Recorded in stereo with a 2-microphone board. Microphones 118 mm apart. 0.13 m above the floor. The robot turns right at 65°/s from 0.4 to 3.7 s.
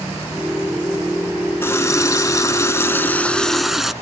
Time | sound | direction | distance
1.6 | a running tap | 20° left (ahead or behind) | 0.8 m